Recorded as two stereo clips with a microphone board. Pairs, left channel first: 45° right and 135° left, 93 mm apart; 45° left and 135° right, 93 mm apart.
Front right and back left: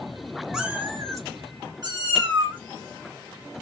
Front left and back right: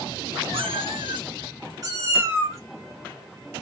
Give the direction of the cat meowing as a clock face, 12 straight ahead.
5 o'clock.